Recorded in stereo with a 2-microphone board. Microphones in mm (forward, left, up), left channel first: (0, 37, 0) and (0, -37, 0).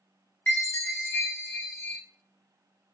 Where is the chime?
30° left (ahead or behind), 0.9 m.